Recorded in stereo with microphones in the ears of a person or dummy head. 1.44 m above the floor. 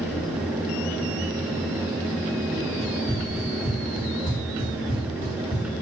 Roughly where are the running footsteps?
Centre.